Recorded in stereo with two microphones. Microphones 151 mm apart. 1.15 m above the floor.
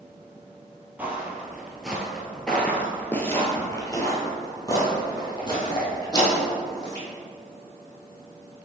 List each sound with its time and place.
1.0 s footsteps: 10° right (ahead or behind), 1.4 m; by 7.0 s 30° left (ahead or behind), 2.5 m